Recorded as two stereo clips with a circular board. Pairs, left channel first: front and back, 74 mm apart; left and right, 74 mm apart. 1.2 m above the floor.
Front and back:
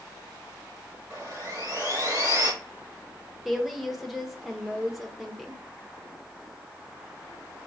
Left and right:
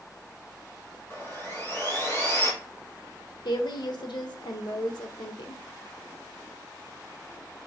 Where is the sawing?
145° left, 2.5 m.